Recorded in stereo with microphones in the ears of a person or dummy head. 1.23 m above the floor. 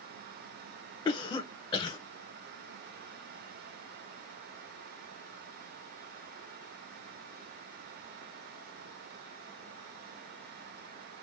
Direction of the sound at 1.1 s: 15° left (ahead or behind).